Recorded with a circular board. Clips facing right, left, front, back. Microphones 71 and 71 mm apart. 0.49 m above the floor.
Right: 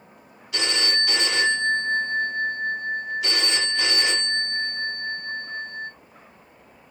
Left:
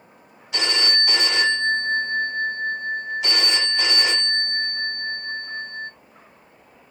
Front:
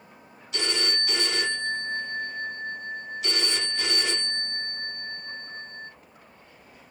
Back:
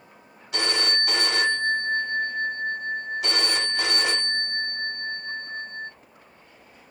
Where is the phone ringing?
155° left, 3 m.